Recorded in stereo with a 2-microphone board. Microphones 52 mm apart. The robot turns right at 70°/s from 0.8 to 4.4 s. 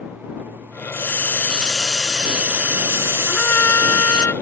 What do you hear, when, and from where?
0.9 s a hiss: 110° left; by 4.3 s 15° right
3.3 s a trumpet: 30° left; by 4.3 s 105° left